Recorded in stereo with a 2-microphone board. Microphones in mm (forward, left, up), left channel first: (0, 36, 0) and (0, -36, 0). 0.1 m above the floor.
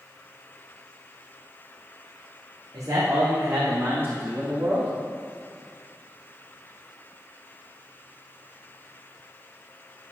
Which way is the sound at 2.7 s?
50° right (ahead or behind).